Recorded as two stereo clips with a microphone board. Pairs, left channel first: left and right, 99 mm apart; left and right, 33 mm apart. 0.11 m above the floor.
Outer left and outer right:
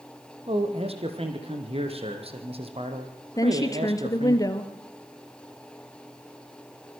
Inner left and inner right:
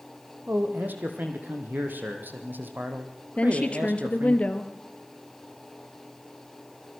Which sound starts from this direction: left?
A woman speaking, at 3.4 s.